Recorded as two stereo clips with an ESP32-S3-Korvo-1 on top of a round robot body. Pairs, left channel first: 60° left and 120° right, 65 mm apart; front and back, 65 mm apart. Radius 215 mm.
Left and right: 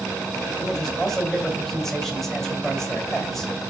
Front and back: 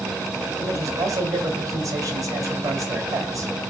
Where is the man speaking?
145° left, 3 m.